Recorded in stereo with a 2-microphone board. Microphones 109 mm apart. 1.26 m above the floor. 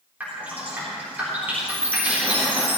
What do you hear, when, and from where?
0.2 s dripping: 15° right (ahead or behind), 4 m
1.7 s a chime: 20° right (ahead or behind), 1.1 m